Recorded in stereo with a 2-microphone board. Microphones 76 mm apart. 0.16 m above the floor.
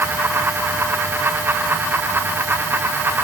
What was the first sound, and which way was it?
Only background noise.